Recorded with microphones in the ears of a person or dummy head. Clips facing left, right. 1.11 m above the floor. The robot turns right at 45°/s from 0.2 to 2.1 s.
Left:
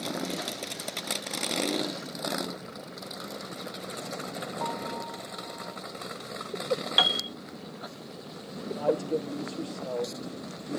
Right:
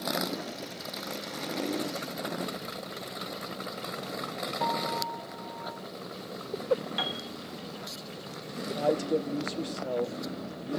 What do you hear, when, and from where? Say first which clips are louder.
4.6 s a piano: right 4 dB; 25° right (ahead or behind), 1.6 m
7.0 s a piano: left 4 dB; 80° left, 0.8 m
8.8 s a man speaking: even; 15° right (ahead or behind), 0.7 m